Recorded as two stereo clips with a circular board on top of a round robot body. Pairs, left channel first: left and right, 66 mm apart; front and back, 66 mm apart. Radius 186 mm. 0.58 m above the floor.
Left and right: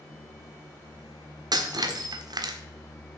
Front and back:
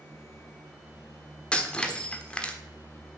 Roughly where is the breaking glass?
Right.